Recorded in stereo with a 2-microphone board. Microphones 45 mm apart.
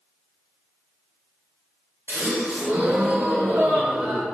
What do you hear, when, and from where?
2.1 s a gasp: 55° right (ahead or behind), 1.2 m